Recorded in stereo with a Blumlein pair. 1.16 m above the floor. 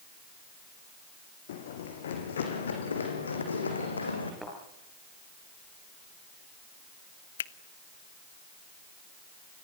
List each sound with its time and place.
1.5 s running footsteps: 60° left, 4 m; by 4.3 s 80° left, 4 m
4.4 s a thud: straight ahead, 7.5 m
7.4 s a finger snap: 65° left, 0.7 m